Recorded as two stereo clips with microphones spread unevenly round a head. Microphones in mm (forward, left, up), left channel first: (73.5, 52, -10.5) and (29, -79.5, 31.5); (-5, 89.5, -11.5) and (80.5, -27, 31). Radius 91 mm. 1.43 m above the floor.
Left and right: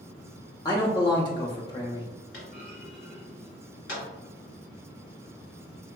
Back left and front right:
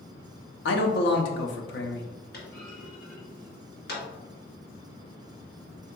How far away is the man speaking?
About 0.6 m.